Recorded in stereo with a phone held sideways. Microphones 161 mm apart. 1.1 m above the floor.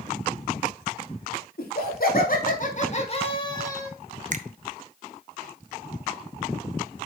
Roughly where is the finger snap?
Right.